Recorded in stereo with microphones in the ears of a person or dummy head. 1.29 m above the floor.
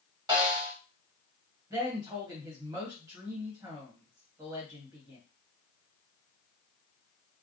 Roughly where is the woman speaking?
Centre.